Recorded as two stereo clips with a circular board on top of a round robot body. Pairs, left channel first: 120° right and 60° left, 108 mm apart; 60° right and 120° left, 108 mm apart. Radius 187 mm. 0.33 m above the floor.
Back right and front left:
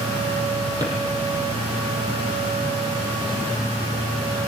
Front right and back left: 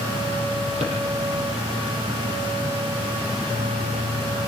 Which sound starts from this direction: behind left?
A drawer, at 0.8 s.